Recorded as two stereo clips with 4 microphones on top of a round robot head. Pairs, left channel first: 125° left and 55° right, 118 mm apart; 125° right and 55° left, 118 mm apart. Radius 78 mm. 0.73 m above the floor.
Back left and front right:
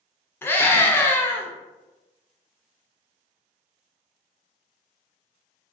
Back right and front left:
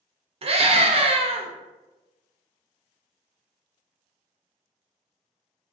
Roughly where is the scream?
Ahead left.